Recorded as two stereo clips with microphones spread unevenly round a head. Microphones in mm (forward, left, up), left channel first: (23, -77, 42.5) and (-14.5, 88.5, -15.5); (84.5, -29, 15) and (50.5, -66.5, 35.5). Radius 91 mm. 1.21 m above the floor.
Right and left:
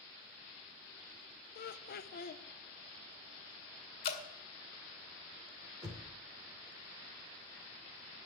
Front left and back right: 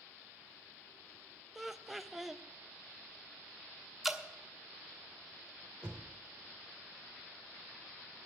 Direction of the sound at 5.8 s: 175° left.